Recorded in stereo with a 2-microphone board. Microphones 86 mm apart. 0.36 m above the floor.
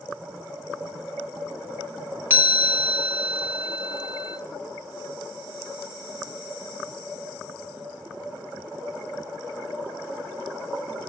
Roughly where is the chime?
Right.